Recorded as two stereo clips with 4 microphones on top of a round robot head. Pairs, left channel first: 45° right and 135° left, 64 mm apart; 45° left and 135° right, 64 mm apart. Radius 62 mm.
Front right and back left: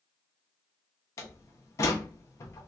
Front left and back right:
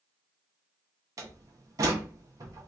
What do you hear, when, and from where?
1.2 s a door slam: 95° right, 0.6 m